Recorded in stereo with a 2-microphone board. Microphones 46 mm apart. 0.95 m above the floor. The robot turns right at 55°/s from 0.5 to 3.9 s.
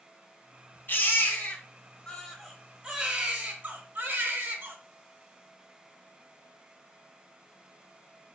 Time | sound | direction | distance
0.9 | a baby crying | 95° left | 0.8 m